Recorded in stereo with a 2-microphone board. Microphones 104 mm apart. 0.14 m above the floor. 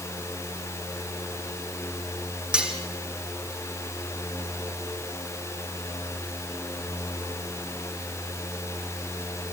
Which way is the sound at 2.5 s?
10° right (ahead or behind).